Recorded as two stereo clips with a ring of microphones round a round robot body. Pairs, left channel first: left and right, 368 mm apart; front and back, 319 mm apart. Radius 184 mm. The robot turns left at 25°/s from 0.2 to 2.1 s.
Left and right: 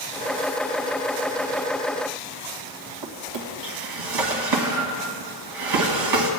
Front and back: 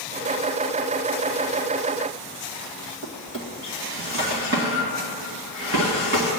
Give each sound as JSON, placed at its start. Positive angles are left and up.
{"t": 3.0, "sound": "a drawer", "azimuth_deg": -120, "distance_m": 1.9}